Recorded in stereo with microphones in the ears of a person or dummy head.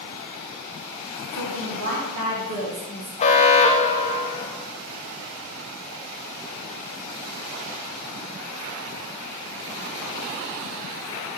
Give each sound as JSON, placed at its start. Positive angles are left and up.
{"t": 1.3, "sound": "a woman speaking", "side_deg": -65, "distance_m": 1.3}
{"t": 3.2, "sound": "an alarm", "side_deg": 35, "distance_m": 1.1}